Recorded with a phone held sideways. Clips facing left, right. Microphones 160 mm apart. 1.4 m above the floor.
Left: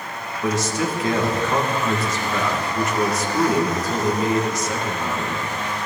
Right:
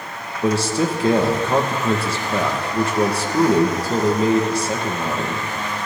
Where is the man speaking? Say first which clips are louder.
Right 4 dB; 30° right (ahead or behind), 1.7 m.